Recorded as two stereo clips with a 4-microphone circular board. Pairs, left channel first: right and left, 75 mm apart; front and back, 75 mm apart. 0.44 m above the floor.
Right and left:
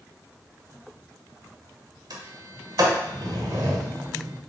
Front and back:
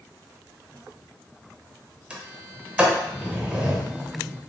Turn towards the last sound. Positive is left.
turn(degrees=105)